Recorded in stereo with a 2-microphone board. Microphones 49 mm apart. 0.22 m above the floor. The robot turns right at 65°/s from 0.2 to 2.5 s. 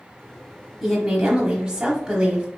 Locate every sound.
0.8 s a woman speaking: centre (ahead or behind), 1.0 m; by 2.5 s 20° right (ahead or behind), 1.0 m